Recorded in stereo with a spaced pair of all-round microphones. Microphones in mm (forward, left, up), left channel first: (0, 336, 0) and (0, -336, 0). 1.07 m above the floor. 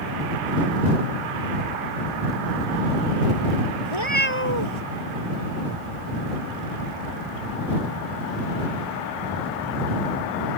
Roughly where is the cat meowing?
Right.